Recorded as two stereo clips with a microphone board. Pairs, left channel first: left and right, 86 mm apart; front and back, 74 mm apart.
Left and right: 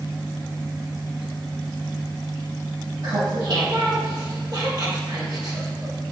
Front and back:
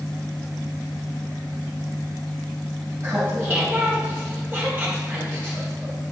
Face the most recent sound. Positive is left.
turn(degrees=-120)